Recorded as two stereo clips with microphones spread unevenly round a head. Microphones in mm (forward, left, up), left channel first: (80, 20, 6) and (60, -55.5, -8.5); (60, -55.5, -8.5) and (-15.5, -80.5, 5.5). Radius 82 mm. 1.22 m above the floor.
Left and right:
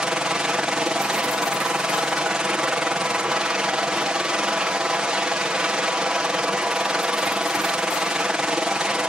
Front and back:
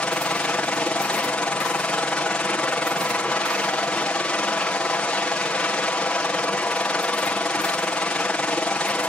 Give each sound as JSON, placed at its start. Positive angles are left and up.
{"t": 0.0, "sound": "a helicopter", "azimuth_deg": -40}